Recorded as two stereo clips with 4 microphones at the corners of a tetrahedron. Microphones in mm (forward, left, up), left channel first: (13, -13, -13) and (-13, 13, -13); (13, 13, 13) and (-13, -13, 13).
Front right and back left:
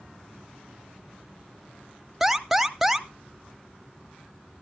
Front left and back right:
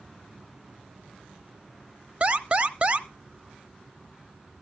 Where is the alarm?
145° right, 0.7 m.